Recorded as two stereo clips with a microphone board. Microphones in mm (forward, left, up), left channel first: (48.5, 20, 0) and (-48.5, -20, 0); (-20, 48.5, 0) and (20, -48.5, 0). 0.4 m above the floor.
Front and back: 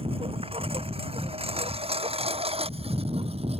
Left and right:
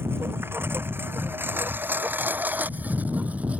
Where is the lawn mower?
135° right; by 3.6 s 145° right.